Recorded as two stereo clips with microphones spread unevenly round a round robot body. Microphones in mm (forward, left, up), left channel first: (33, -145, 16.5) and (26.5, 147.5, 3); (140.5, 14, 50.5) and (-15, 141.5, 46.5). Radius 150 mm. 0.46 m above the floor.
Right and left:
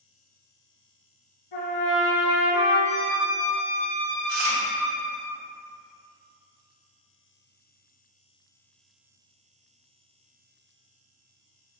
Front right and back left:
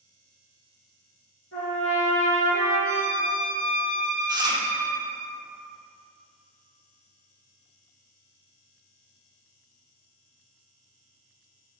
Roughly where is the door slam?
No door slam in this recording.